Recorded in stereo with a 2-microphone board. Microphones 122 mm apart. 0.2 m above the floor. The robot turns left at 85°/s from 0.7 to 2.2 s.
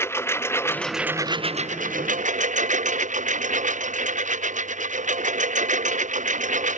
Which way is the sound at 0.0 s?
15° left.